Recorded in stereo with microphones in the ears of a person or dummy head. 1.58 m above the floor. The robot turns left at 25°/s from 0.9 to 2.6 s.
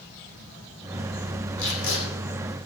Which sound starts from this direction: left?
Tape being pulled, at 1.6 s.